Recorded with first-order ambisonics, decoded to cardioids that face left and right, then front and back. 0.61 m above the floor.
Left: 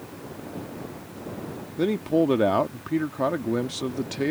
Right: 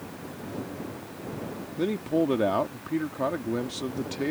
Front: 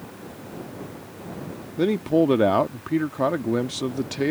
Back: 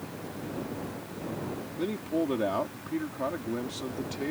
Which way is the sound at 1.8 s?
20° left.